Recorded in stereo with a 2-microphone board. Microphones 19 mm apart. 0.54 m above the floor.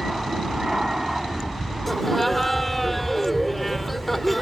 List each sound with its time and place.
0.0 s an aircraft: 20° right (ahead or behind)
1.9 s laughter: 5° left (ahead or behind)